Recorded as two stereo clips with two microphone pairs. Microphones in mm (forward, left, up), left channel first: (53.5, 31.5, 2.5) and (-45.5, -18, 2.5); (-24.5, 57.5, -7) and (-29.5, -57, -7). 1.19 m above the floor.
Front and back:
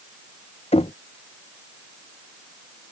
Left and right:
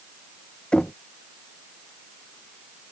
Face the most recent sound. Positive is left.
turn(degrees=5)